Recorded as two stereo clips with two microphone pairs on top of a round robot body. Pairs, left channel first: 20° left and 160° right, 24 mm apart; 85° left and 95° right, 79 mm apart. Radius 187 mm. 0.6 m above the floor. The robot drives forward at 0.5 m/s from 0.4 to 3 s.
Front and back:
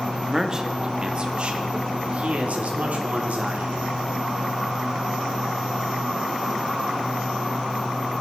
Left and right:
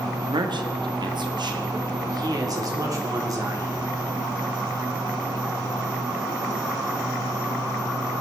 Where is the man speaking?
90° right, 1.3 m; by 4.0 s 140° right, 1.8 m.